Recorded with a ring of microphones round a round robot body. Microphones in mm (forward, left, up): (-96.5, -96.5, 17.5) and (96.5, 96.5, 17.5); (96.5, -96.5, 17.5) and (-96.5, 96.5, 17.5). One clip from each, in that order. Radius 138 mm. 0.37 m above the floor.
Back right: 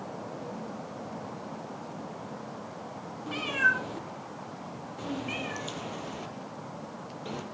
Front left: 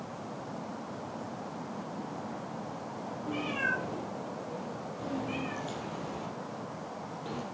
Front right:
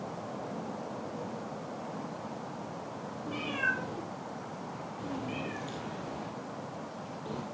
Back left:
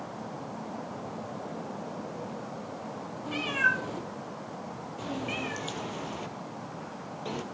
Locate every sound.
3.3 s a cat meowing: 165° right, 4 m; by 7.4 s 160° left, 3 m